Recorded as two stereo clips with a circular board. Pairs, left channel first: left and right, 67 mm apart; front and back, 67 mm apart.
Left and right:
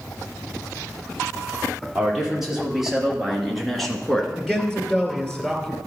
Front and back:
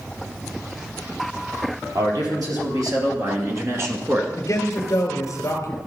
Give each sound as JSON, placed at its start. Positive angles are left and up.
{"t": 1.9, "sound": "a man speaking", "azimuth_deg": -170, "distance_m": 4.5}
{"t": 4.4, "sound": "a man speaking", "azimuth_deg": 15, "distance_m": 2.0}